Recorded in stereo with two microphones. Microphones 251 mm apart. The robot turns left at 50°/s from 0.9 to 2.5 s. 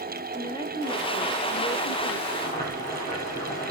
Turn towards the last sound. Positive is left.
turn(degrees=30)  # may be behind; listen again after turning